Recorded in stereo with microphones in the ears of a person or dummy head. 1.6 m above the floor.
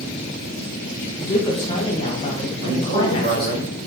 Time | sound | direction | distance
1.2 | a woman speaking | 35° left (ahead or behind) | 1.8 m
2.6 | a man speaking | 55° right (ahead or behind) | 4 m